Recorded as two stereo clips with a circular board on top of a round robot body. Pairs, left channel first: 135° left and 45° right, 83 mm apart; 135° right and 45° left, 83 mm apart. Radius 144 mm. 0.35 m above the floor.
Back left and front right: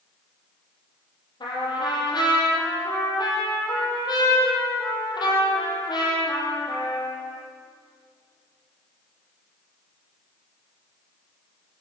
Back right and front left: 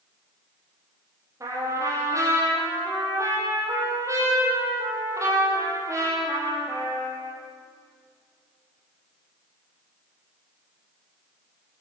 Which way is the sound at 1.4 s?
100° left.